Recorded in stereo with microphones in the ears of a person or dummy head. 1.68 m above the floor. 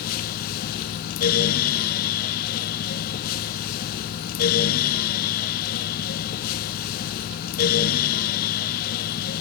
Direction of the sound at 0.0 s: 50° left (ahead or behind).